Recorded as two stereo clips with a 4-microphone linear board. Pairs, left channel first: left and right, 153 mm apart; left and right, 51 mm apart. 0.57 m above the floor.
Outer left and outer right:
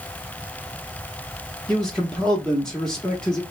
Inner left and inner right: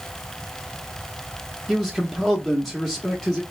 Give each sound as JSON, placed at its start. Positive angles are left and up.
{"t": 1.7, "sound": "a man speaking", "side_deg": 5, "distance_m": 0.7}